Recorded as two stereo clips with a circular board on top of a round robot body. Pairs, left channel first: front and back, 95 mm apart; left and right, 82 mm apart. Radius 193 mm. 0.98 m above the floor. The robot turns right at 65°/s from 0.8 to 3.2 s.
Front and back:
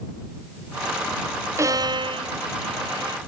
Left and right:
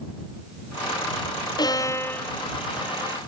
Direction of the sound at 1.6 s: 120° left.